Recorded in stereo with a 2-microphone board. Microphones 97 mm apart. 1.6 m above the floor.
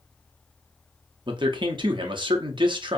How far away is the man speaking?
About 0.6 m.